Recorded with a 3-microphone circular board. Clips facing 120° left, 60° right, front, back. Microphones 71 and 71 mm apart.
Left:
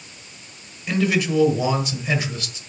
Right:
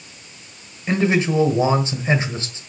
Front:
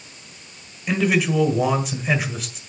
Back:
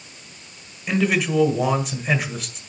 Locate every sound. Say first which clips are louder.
0.9 s a man speaking: right 2 dB, front 1 dB; 90° right, 1.5 m